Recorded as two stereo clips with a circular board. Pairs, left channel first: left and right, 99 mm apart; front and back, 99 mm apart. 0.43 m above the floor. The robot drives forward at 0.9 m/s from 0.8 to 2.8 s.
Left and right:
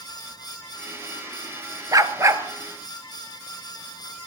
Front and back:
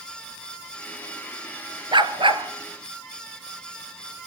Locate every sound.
1.9 s a dog barking: 145° right, 1.5 m; by 2.4 s 150° right, 1.9 m